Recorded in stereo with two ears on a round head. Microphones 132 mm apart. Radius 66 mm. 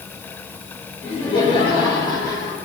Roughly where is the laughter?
Left.